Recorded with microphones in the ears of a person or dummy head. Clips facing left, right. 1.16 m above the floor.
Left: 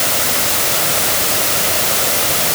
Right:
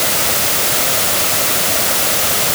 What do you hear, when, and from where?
Only background noise.